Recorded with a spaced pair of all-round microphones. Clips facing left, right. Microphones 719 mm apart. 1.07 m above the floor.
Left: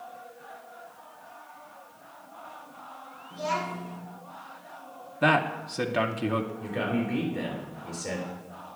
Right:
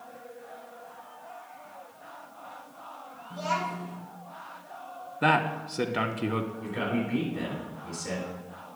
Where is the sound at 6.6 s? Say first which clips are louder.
Left 1 dB; 5° right (ahead or behind), 3.5 m.